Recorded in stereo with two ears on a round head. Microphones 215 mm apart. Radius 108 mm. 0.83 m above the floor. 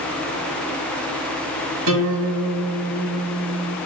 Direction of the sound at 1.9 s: 80° right.